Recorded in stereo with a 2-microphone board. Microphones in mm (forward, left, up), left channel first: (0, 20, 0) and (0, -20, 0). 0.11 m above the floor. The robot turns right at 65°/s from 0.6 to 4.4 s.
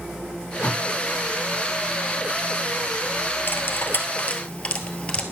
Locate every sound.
0.6 s tape being pulled: 5° left (ahead or behind), 4 m; by 0.8 s 20° left (ahead or behind), 4 m
3.5 s cutlery clinking: 60° left (ahead or behind), 1.2 m; by 5.2 s 30° left (ahead or behind), 1.2 m